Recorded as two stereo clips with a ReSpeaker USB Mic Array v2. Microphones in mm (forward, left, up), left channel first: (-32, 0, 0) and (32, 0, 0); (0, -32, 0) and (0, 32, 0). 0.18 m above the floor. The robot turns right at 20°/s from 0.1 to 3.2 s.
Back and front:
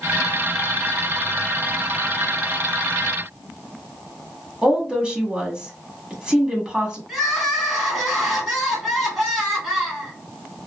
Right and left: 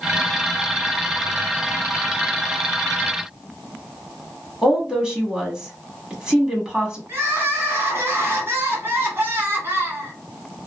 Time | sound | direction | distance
4.6 | a woman speaking | 45° left | 1.0 m
7.1 | crying | 85° left | 1.3 m